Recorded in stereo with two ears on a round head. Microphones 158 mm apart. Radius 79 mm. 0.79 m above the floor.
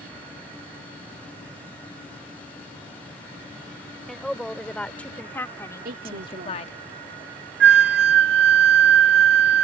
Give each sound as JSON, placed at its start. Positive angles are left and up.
{"t": 4.1, "sound": "a woman speaking", "side_deg": 0}
{"t": 5.8, "sound": "a woman speaking", "side_deg": -55}
{"t": 7.6, "sound": "a flute", "side_deg": -70}